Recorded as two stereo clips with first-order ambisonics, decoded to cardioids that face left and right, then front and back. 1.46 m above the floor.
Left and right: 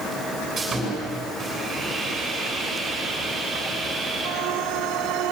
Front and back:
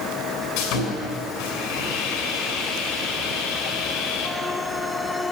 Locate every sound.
0.6 s sawing: 10° right, 7 m